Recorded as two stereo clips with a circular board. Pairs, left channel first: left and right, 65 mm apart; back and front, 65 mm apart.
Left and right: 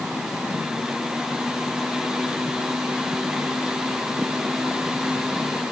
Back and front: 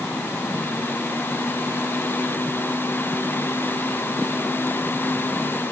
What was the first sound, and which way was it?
Only background noise.